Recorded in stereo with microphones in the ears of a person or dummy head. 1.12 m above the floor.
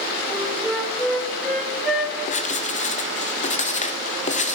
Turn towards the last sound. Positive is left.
turn(degrees=40)  # may be behind; listen again after turning